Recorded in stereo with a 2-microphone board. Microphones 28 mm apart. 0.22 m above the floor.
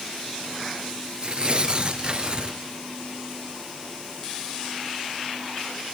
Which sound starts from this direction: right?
Tearing paper, at 1.2 s.